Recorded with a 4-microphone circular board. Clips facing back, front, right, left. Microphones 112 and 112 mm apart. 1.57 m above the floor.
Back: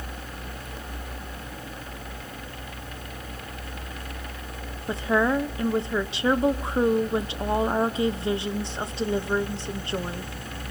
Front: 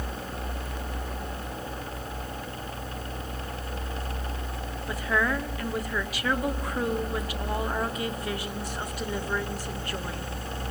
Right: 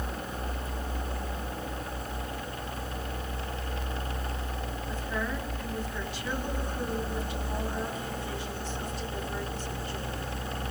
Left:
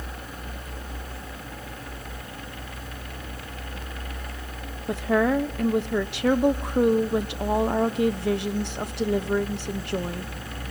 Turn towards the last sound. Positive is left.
turn(degrees=115)